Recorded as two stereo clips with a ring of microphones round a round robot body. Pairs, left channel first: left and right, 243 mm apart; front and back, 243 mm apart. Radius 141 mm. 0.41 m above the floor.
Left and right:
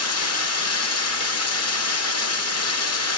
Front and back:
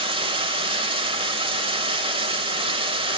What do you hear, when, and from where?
0.0 s running water: 110° left, 0.7 m